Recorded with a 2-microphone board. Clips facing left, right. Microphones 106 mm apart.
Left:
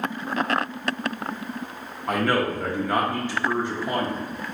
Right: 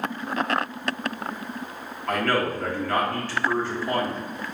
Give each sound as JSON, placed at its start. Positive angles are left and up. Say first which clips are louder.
{"t": 2.1, "sound": "a man speaking", "louder": "left 1 dB", "side_deg": 15, "distance_m": 0.7}